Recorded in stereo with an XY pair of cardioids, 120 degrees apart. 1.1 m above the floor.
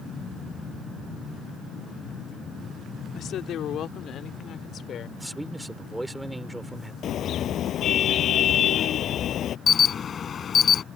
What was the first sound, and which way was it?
A woman speaking, 65° left.